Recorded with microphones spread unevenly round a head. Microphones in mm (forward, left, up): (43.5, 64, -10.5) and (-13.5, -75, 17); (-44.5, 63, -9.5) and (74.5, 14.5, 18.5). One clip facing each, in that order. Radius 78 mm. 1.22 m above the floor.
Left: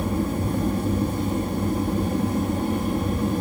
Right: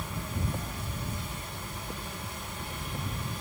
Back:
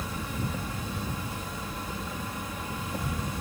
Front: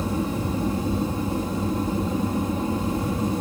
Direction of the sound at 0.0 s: 30° left.